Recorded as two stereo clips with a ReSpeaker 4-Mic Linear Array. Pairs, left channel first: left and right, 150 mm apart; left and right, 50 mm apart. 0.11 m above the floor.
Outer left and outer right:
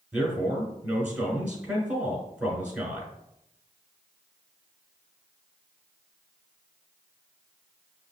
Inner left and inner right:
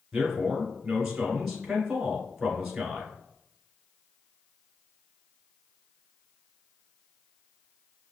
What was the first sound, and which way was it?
A man speaking, 10° right (ahead or behind).